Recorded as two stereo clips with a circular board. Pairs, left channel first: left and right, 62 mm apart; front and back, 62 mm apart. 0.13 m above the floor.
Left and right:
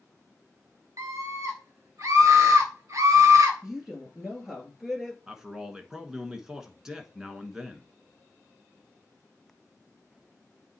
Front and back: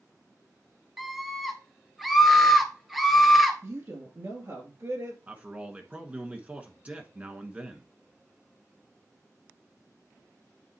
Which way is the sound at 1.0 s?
95° right.